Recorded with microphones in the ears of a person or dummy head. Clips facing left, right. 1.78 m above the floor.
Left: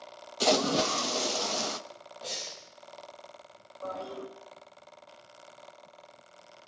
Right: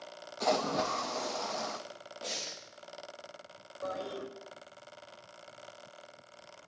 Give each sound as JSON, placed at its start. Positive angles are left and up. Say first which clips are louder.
{"t": 0.4, "sound": "a splash", "louder": "left 4 dB", "side_deg": 50, "distance_m": 0.7}
{"t": 2.2, "sound": "breathing", "louder": "even", "side_deg": -35, "distance_m": 2.0}
{"t": 3.8, "sound": "a toilet flushing", "louder": "even", "side_deg": -30, "distance_m": 5.5}